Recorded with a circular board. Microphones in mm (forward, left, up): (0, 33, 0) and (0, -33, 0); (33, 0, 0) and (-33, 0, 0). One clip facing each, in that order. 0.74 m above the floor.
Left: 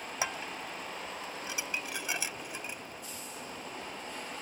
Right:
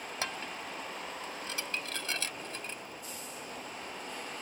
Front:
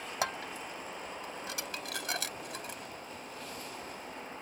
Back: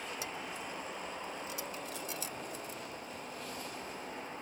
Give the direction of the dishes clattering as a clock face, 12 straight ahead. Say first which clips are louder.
Left 3 dB, front 5 dB; 12 o'clock.